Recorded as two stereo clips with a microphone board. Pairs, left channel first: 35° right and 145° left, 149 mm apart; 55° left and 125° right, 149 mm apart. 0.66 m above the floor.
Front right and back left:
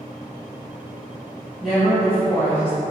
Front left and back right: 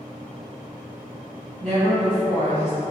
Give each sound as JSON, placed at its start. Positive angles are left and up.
{"t": 1.6, "sound": "a woman speaking", "azimuth_deg": -125, "distance_m": 1.7}